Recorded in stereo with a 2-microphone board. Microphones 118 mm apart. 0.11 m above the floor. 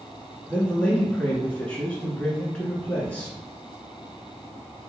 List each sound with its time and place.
0.5 s a man speaking: 10° left (ahead or behind), 1.2 m